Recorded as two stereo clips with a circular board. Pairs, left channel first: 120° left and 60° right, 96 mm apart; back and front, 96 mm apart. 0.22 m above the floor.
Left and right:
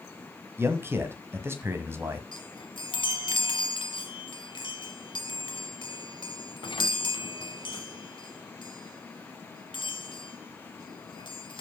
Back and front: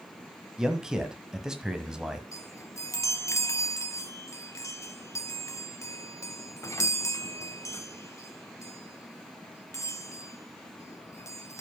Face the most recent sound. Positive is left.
turn(degrees=130)